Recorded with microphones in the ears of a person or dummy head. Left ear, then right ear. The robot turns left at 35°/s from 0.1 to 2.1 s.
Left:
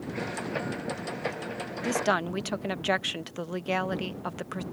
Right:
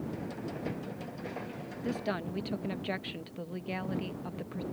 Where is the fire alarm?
I don't hear a fire alarm.